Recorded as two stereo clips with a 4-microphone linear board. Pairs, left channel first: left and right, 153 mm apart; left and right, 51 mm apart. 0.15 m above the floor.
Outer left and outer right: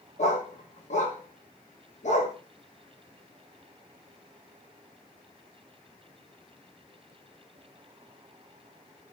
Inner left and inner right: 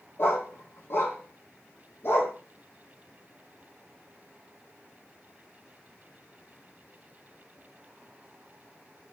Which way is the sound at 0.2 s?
55° left (ahead or behind).